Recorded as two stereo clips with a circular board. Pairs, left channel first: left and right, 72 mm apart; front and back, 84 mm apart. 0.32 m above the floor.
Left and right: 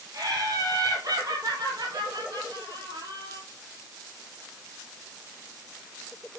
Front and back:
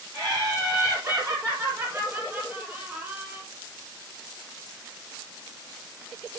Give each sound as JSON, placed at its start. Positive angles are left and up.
{"t": 0.1, "sound": "laughter", "azimuth_deg": -135, "distance_m": 8.0}